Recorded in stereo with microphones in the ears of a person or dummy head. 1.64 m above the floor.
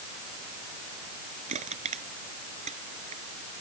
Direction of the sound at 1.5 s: 35° right (ahead or behind).